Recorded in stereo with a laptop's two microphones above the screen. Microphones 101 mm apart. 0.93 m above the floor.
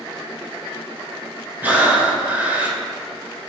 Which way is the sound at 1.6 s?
15° right (ahead or behind).